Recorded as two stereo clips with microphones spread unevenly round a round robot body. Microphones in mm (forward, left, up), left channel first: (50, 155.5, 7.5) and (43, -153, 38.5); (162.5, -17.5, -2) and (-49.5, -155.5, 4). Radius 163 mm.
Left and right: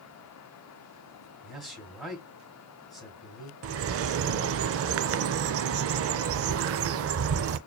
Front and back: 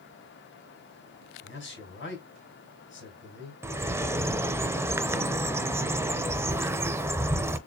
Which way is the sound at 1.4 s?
Straight ahead.